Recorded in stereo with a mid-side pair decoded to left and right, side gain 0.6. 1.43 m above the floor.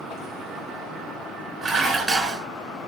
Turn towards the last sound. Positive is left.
turn(degrees=-30)